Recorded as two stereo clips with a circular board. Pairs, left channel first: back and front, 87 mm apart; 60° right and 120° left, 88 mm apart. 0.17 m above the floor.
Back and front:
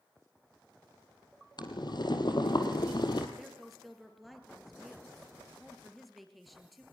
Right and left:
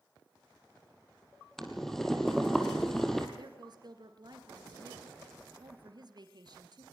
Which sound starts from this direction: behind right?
Boiling, at 1.6 s.